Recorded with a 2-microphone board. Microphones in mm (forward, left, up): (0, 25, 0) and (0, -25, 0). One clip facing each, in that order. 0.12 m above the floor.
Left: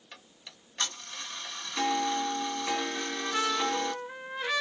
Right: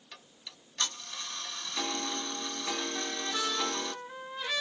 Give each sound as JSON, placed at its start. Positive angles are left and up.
{"t": 0.1, "sound": "ticking", "side_deg": 20, "distance_m": 0.7}
{"t": 2.9, "sound": "a trumpet", "side_deg": 35, "distance_m": 1.5}